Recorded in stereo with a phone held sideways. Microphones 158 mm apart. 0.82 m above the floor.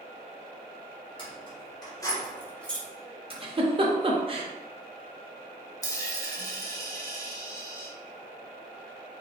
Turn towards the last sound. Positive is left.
turn(degrees=20)  # may be behind; listen again after turning